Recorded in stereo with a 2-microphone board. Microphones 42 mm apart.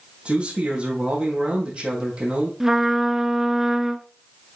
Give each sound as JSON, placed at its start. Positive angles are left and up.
{"t": 0.2, "sound": "a man speaking", "side_deg": -30, "distance_m": 4.5}
{"t": 2.6, "sound": "a trumpet", "side_deg": -15, "distance_m": 0.7}